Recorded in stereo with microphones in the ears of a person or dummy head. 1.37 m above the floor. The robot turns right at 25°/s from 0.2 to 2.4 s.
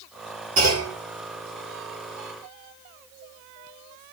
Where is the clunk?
40° right (ahead or behind), 5.5 m; by 1.0 s 50° right (ahead or behind), 5.5 m.